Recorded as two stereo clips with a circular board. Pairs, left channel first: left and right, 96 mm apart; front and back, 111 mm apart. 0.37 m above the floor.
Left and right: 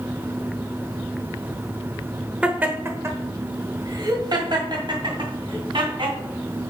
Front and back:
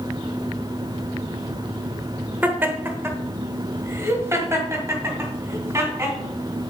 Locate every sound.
2.4 s laughter: 145° right, 1.0 m; by 6.2 s 115° right, 3 m